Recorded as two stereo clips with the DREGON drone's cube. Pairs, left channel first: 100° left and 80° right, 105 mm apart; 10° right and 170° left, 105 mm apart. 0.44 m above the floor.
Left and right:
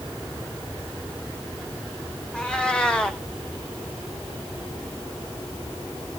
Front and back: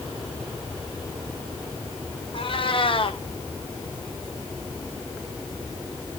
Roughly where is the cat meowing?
Ahead.